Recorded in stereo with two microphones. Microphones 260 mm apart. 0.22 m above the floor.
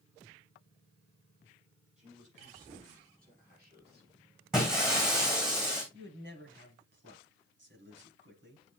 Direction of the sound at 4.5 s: Centre (ahead or behind).